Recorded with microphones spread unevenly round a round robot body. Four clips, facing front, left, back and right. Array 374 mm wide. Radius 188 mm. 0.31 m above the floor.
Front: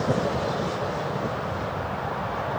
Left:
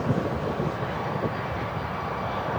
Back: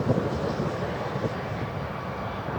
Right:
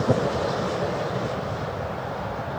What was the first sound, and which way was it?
Only background noise.